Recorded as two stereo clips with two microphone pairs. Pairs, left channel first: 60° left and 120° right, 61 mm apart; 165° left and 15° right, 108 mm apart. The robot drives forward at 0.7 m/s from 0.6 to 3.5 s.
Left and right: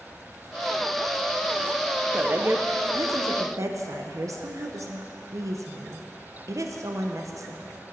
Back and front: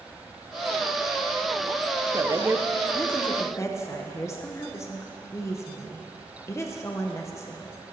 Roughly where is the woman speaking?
Ahead right.